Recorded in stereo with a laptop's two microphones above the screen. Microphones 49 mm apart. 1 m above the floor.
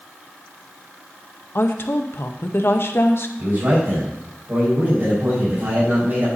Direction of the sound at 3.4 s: 50° right (ahead or behind).